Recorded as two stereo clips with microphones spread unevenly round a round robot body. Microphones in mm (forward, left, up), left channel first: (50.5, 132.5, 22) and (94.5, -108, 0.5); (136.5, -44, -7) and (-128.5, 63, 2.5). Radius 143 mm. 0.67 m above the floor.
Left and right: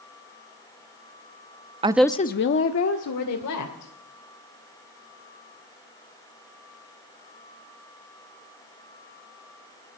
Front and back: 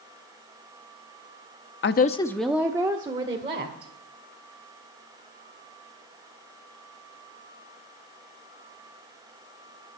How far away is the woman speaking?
About 0.7 m.